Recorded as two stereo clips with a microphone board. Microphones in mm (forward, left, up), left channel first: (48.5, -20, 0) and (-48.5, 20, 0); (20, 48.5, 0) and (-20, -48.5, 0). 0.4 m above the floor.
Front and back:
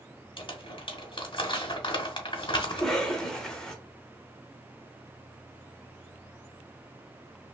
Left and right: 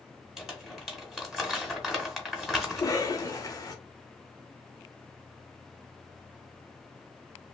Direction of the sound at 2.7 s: 55° left.